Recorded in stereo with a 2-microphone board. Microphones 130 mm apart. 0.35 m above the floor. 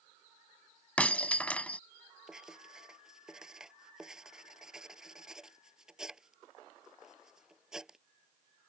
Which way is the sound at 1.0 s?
10° left (ahead or behind).